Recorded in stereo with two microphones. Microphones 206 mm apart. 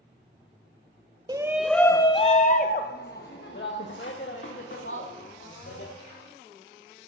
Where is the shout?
20° right (ahead or behind), 0.6 m; by 5.9 s 70° left (ahead or behind), 2.5 m.